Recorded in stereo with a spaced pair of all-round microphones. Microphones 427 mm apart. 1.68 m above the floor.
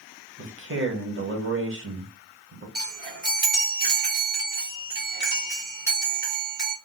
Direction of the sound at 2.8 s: 25° right (ahead or behind).